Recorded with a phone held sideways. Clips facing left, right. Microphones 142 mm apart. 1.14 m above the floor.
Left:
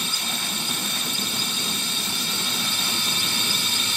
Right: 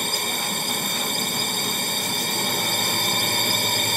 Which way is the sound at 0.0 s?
55° right (ahead or behind).